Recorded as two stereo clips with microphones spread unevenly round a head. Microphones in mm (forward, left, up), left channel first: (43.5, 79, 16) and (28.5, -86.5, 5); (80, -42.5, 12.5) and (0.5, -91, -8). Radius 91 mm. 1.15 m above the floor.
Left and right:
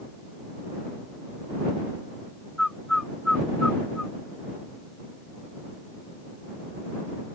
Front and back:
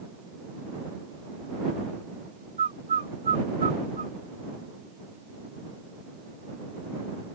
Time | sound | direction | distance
2.6 | a bird | 175° left | ?